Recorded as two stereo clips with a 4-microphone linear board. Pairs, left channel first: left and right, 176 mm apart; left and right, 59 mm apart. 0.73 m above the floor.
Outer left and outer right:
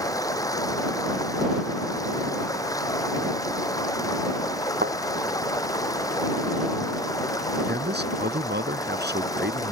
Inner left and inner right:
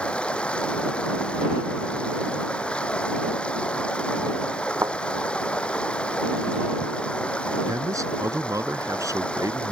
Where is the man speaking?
75° right (ahead or behind).